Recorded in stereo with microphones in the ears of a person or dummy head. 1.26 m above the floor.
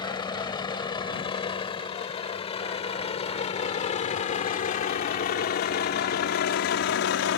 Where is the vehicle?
25° left (ahead or behind); by 7.4 s 75° left (ahead or behind).